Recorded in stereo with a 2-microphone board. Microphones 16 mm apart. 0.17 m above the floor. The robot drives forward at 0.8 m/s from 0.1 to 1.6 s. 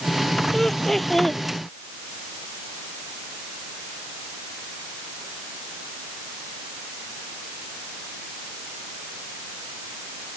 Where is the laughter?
15° left (ahead or behind); by 1.4 s 20° left (ahead or behind).